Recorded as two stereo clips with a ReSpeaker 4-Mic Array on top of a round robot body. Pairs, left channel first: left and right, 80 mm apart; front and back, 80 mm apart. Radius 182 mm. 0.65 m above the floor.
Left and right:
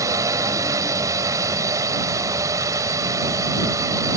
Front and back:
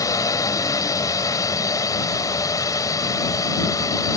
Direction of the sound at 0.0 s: 45° right.